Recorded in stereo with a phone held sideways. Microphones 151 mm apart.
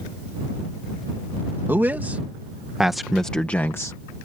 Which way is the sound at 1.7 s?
15° right (ahead or behind).